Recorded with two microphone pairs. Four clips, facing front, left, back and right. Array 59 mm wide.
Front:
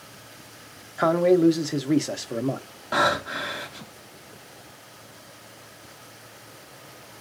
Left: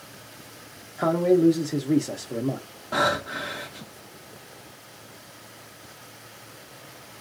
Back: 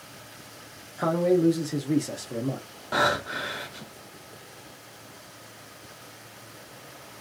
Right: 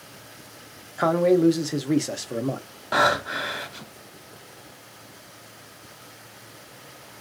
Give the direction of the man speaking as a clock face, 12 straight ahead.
1 o'clock.